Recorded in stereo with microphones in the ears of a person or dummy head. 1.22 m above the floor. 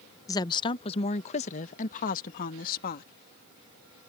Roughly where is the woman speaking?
Left.